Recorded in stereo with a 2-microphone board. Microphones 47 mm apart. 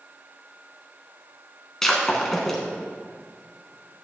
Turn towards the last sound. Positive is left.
turn(degrees=5)  # may be behind; listen again after turning